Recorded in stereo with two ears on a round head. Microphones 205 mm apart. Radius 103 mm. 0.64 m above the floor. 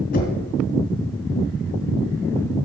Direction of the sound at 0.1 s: 45° left (ahead or behind).